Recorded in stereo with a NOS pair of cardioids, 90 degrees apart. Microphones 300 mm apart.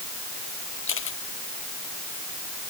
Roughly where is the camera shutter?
Ahead left.